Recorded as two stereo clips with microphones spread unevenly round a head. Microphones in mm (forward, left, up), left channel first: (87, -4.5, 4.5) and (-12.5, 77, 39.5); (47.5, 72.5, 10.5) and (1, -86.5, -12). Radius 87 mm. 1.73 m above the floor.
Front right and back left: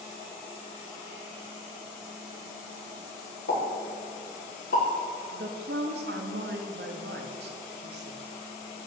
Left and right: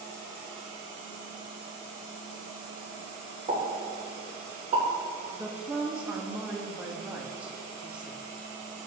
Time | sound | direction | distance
3.5 | a pop | 50° right | 3 m
5.3 | a woman speaking | 170° left | 1.0 m